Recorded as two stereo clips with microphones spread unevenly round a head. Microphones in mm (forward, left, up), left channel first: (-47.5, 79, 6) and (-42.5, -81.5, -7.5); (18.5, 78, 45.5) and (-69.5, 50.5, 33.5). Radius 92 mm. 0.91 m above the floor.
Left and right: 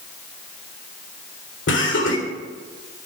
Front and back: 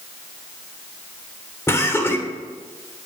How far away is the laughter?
About 3.5 m.